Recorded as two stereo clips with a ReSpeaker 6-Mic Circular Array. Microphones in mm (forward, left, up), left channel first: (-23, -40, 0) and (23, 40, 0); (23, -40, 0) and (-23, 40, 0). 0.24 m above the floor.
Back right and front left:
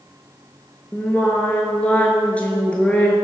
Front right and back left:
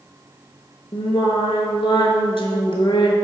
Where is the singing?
45° right, 0.5 m.